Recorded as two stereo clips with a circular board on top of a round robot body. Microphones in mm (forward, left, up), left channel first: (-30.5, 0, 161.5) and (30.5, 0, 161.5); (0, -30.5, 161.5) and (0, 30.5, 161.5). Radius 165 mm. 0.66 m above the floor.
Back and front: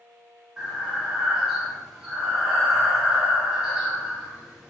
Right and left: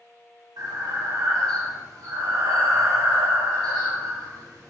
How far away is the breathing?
About 1.2 m.